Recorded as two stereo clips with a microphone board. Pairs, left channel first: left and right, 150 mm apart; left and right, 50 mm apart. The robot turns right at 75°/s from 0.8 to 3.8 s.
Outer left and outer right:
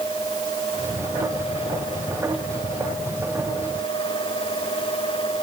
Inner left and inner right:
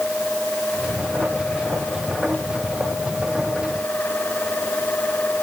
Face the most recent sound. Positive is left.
No sound to turn to.